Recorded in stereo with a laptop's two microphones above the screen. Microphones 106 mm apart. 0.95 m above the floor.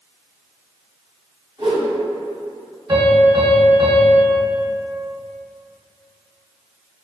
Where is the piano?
30° right (ahead or behind), 1.4 m.